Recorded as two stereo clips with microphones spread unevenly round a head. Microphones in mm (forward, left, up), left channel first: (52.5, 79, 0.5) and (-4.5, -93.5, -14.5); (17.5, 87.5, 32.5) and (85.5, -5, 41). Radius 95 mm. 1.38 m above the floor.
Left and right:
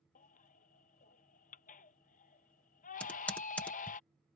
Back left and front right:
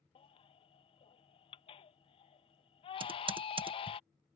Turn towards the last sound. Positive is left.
turn(degrees=-10)